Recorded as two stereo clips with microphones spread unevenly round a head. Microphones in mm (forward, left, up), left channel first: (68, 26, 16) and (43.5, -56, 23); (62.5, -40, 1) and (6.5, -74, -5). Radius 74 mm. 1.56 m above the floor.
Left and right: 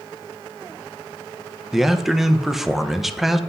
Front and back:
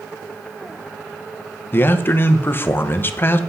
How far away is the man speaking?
About 1.0 m.